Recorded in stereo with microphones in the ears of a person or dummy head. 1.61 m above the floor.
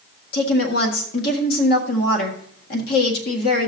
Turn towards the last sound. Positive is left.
turn(degrees=60)  # may be behind; listen again after turning